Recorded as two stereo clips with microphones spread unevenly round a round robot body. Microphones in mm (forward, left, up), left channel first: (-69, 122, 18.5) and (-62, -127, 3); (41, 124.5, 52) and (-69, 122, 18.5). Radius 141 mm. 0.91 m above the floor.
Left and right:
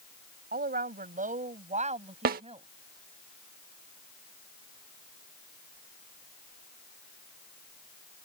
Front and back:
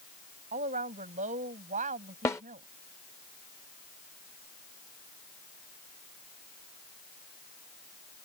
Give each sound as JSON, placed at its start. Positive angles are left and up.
{"t": 0.5, "sound": "a woman speaking", "azimuth_deg": -145}
{"t": 2.2, "sound": "a snare drum", "azimuth_deg": -40}